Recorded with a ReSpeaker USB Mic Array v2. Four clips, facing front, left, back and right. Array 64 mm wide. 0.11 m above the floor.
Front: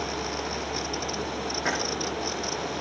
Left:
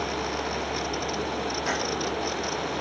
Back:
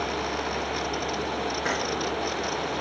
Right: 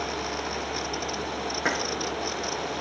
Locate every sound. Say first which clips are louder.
1.6 s keys jangling: right 3 dB, front 1 dB; 90° right, 5.5 m